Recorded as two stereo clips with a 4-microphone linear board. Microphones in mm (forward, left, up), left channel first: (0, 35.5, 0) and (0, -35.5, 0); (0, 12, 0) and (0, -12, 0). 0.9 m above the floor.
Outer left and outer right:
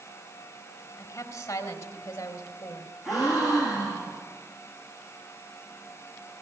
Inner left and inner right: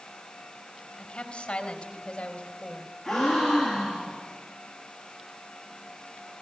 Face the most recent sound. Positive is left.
turn(degrees=-5)  # may be behind; listen again after turning